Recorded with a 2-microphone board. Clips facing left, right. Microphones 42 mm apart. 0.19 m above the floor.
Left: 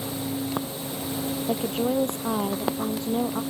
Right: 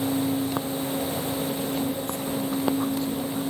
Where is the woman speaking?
60° left (ahead or behind).